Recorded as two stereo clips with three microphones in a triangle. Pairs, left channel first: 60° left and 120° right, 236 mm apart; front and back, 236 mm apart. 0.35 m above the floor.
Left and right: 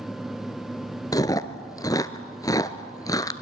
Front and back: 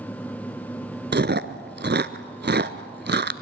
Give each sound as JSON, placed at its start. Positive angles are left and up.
{"t": 1.1, "sound": "chewing", "azimuth_deg": 135, "distance_m": 0.9}